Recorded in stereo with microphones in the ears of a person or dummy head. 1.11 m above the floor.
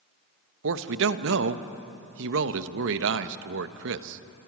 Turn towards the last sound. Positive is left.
turn(degrees=-70)  # may be behind; listen again after turning